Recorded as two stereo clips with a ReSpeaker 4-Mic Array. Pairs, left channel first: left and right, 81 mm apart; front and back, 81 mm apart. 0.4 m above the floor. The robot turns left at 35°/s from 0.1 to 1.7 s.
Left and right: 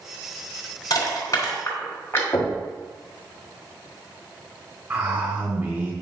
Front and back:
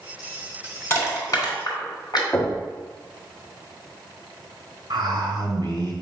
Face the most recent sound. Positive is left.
turn(degrees=-150)